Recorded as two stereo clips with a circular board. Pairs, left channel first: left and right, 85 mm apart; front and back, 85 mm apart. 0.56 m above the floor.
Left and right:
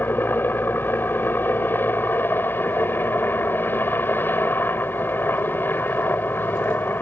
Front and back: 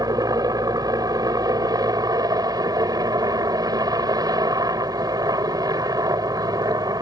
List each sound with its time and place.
0.0 s a helicopter: 150° left